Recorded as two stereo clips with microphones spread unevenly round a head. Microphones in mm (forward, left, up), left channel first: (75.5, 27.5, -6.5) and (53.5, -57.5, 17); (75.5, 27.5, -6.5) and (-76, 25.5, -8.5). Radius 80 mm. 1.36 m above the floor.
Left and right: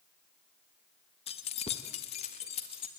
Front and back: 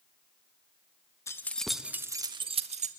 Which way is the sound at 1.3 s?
75° left.